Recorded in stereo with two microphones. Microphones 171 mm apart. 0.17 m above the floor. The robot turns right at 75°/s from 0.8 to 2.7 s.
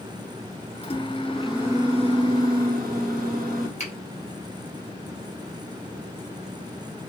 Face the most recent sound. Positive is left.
turn(degrees=40)  # may be behind; listen again after turning